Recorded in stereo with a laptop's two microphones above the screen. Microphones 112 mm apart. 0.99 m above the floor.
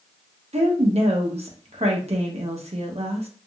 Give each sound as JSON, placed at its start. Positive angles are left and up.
{"t": 0.5, "sound": "a woman speaking", "side_deg": -65, "distance_m": 0.9}